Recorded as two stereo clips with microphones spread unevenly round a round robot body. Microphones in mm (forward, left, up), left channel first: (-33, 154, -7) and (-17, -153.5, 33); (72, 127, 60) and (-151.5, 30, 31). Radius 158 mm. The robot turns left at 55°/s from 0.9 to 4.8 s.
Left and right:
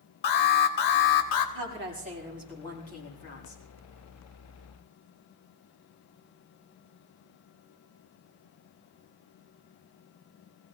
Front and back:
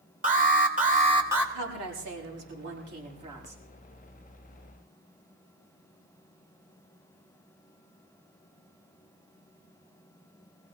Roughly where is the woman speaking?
Behind right.